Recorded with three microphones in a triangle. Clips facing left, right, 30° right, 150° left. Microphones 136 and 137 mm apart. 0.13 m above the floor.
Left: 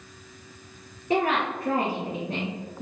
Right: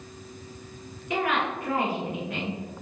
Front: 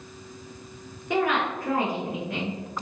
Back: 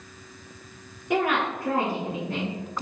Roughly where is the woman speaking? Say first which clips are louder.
Left 3 dB, even; left.